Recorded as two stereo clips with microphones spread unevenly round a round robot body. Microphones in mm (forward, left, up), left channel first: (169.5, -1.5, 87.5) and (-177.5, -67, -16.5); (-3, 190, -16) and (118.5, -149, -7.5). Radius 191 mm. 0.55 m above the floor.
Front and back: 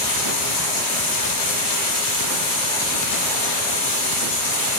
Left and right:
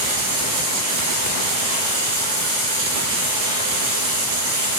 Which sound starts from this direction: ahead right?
Running water, at 0.0 s.